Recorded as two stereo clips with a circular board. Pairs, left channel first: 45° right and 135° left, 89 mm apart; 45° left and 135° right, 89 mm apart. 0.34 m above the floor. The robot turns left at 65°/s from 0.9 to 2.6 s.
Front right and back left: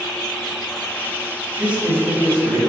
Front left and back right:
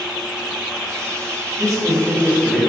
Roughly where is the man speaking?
Behind right.